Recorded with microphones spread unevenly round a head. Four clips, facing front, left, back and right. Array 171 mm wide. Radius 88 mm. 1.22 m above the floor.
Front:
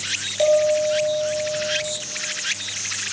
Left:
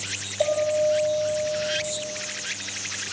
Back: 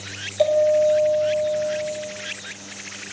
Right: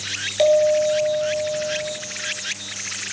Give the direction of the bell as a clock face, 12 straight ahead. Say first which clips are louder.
Right 6 dB, back 1 dB; 2 o'clock.